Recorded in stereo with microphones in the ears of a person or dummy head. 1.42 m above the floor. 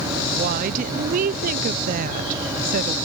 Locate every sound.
0.3 s a woman speaking: 40° right (ahead or behind), 0.5 m